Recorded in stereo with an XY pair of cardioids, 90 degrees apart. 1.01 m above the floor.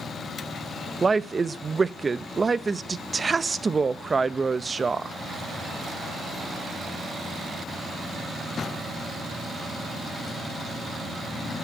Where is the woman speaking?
35° right, 0.6 m.